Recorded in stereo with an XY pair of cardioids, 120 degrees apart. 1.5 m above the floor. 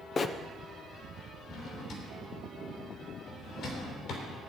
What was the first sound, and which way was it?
A bird, 35° left.